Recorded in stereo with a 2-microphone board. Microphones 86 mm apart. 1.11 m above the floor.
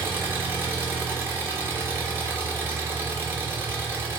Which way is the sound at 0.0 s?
25° right (ahead or behind).